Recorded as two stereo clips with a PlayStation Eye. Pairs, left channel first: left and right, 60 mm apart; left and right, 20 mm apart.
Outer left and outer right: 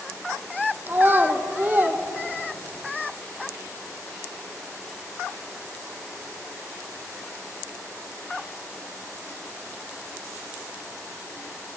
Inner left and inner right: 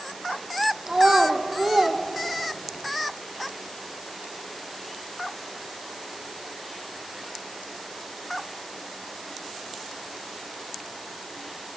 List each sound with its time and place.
0.9 s a child speaking: 35° right (ahead or behind), 2.5 m